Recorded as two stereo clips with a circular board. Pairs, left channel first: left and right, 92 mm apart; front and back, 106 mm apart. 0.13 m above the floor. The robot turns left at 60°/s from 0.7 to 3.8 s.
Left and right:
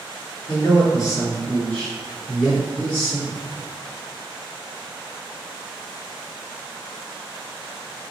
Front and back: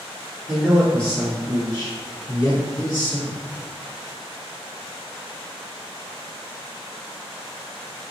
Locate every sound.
0.5 s a man speaking: 85° left, 1.9 m; by 3.4 s 75° right, 1.9 m